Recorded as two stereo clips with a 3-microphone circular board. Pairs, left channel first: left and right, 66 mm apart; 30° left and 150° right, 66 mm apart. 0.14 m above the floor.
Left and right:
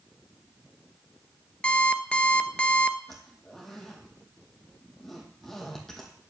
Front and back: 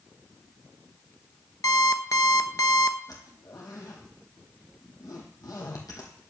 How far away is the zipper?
About 3 m.